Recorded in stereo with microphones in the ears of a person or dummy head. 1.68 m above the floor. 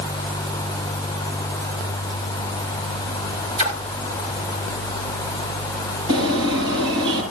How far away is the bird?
About 8.5 m.